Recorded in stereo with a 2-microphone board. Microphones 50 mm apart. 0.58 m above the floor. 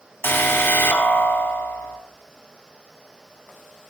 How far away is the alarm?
About 2.5 m.